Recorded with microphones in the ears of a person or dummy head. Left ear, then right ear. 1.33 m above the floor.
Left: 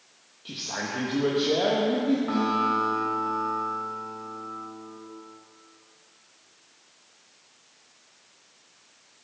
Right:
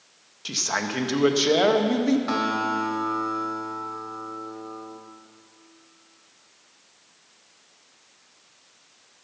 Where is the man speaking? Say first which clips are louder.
Right 6 dB; 60° right (ahead or behind), 1.4 m.